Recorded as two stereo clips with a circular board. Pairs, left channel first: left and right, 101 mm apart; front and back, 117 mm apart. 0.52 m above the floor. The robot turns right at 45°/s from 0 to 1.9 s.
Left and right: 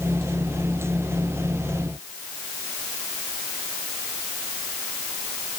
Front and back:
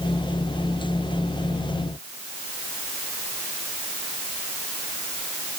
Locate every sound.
Only background noise.